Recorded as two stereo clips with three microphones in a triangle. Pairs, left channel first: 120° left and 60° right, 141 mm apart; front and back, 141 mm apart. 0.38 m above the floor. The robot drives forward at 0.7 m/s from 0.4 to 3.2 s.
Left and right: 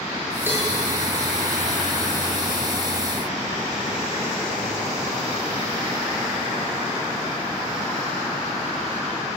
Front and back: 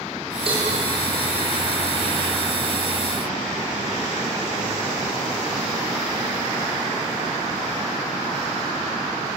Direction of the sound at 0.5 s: 135° right.